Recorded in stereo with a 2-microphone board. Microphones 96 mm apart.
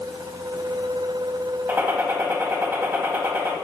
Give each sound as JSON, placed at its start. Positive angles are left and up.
{"t": 1.7, "sound": "a gunshot", "side_deg": -25, "distance_m": 1.5}